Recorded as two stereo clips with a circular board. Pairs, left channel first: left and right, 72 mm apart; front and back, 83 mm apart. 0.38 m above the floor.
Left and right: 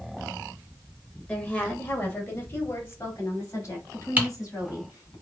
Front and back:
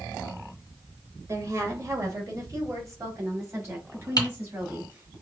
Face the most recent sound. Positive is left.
turn(degrees=-25)